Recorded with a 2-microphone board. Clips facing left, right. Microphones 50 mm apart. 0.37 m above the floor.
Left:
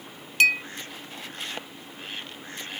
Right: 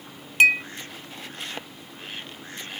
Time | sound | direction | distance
0.4 | a clink | 25° right (ahead or behind) | ?